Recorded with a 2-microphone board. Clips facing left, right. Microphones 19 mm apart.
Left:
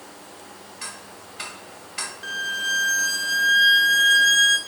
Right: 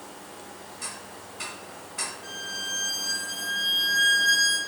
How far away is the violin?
About 0.7 m.